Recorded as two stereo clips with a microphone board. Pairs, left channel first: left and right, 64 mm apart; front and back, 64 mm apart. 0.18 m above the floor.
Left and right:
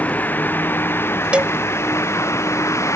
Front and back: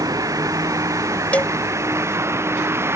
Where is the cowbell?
40° right.